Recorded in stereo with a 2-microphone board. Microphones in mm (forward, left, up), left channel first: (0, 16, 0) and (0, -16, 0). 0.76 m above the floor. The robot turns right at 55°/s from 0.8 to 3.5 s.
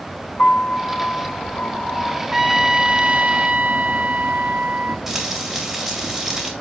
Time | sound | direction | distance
0.4 | a piano | 65° left | 2 m
2.3 | a trumpet | 170° right | 0.7 m
5.1 | frying | 10° right (ahead or behind) | 3.5 m